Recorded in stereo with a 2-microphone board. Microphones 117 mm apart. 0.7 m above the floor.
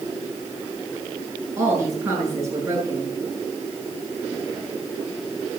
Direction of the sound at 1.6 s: 25° right (ahead or behind).